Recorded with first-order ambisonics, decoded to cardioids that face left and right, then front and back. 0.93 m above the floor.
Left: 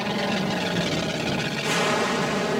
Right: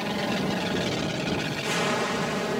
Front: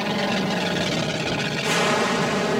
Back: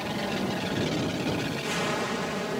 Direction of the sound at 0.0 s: 25° left.